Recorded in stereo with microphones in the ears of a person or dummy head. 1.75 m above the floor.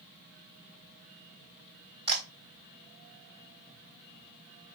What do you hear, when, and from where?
2.1 s a camera shutter: 35° right (ahead or behind), 3.5 m